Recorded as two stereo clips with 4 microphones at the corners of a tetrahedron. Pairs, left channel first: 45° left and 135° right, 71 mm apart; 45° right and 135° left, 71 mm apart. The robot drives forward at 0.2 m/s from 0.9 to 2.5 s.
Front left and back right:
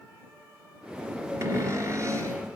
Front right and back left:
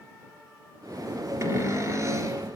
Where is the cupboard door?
Straight behind, 3.5 m.